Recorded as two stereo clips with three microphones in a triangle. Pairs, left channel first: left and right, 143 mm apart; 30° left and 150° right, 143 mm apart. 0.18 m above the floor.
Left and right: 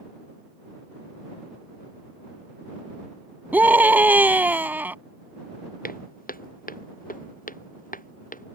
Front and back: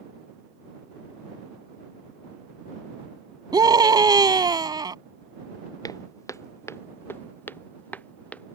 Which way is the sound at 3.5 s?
155° right.